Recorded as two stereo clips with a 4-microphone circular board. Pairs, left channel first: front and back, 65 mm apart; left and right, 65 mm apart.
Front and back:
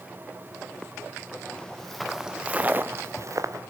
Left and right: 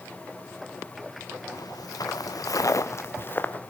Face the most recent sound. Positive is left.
turn(degrees=155)